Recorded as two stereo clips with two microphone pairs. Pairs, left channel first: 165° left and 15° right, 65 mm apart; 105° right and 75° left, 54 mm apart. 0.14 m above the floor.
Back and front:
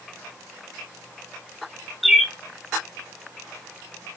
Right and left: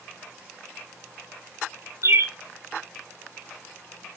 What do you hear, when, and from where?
2.0 s a bird: 75° left, 0.8 m